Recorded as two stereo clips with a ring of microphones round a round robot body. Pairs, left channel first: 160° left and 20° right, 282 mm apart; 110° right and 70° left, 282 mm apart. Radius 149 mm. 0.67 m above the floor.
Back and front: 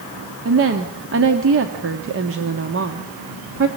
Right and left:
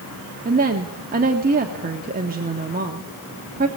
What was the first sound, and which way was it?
A woman speaking, 15° left.